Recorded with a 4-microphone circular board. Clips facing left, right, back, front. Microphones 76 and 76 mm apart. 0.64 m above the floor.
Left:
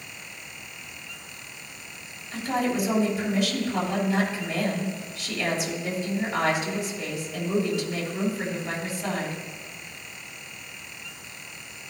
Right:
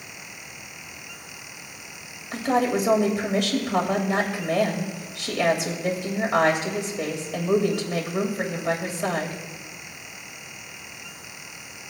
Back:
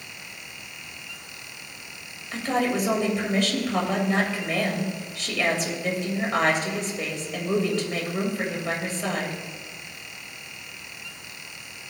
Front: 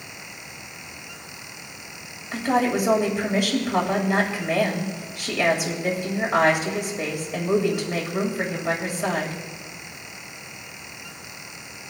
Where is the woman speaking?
75° right, 3 m.